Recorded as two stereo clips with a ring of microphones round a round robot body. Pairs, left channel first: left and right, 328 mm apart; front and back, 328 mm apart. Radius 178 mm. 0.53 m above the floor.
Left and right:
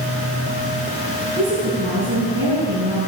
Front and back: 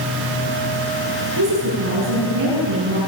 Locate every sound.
1.4 s a woman speaking: 150° right, 9.5 m